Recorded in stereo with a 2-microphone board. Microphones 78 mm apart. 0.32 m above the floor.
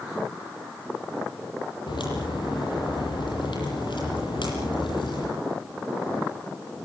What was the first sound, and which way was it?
A crack, 80° left.